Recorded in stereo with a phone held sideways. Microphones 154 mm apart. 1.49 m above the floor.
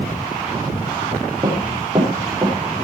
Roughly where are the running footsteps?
Right.